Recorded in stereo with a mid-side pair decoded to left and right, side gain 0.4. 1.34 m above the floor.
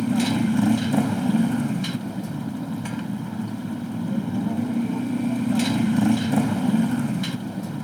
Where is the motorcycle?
Straight ahead.